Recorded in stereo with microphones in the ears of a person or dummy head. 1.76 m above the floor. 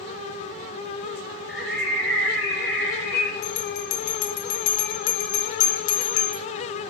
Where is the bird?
10° left (ahead or behind), 3 m.